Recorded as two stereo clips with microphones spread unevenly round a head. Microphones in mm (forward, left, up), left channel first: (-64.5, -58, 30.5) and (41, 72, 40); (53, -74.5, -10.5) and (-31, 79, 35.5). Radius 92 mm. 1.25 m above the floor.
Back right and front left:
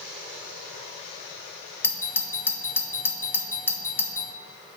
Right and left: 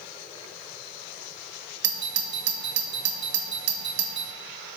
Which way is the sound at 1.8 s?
155° left.